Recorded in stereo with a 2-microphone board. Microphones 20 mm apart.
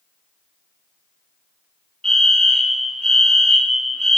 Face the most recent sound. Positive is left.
turn(degrees=30)  # may be behind; listen again after turning